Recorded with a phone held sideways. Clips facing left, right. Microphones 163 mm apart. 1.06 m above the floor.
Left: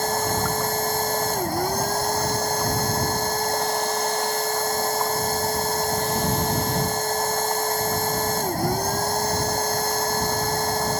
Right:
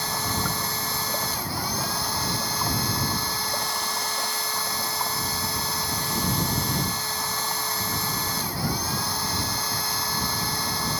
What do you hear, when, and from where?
0.0 s a machine running: 45° left (ahead or behind)